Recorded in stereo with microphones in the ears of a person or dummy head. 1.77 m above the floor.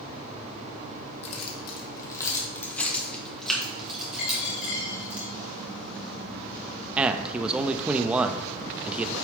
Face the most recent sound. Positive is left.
turn(degrees=-10)  # may be behind; listen again after turning